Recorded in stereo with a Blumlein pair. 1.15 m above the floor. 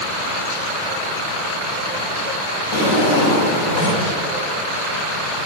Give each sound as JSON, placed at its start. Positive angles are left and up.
{"t": 2.7, "sound": "a drawer", "azimuth_deg": 60, "distance_m": 2.0}